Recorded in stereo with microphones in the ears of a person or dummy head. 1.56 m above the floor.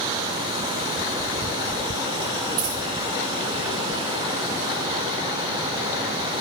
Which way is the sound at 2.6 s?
35° right (ahead or behind).